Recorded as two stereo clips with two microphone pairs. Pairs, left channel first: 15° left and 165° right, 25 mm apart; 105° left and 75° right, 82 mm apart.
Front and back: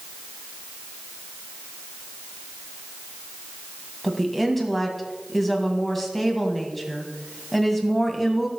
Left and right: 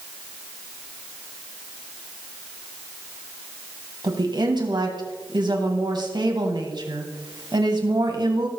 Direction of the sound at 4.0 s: 70° right.